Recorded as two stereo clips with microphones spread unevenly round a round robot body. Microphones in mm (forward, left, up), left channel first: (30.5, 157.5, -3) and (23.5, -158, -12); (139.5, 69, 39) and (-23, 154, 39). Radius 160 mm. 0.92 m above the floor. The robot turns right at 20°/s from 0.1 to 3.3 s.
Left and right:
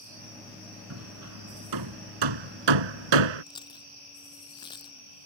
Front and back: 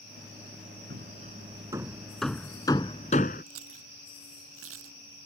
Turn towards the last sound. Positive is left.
turn(degrees=165)